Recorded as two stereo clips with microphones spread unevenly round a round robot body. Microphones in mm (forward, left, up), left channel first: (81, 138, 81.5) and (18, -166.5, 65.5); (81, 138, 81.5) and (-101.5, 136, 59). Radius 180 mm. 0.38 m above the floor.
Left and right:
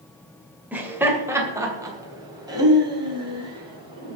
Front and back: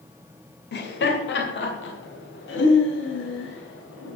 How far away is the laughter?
About 2 m.